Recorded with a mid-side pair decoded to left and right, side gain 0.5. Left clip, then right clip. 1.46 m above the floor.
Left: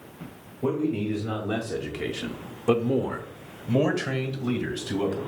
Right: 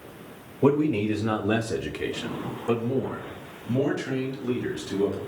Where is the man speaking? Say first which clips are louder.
Right 5 dB; 60° right, 1.0 m; by 5.2 s 80° left, 2 m.